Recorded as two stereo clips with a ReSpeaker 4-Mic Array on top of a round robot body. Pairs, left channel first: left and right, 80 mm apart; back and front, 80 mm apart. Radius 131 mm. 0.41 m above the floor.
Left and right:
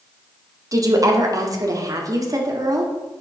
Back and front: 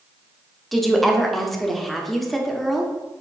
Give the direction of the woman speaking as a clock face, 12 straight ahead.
3 o'clock.